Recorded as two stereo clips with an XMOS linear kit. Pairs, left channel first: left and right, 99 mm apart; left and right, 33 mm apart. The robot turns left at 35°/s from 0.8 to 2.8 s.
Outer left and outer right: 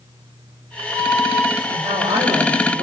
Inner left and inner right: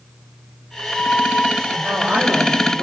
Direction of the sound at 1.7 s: 95° right.